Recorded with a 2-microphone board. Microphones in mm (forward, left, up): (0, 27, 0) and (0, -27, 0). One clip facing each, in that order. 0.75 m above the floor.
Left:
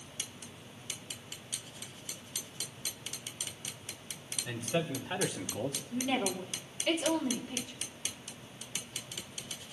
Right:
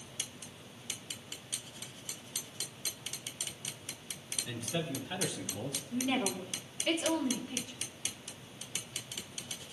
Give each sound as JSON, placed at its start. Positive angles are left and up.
{"t": 4.5, "sound": "a man speaking", "side_deg": 25, "distance_m": 1.4}
{"t": 5.9, "sound": "a woman speaking", "side_deg": -10, "distance_m": 1.8}